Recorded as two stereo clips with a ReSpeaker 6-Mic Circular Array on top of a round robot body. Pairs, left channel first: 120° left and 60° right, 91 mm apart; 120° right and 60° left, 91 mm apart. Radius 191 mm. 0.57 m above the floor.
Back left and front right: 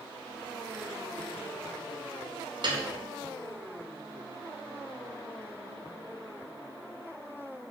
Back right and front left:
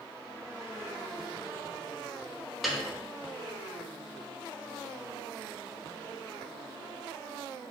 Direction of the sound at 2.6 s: 30° right.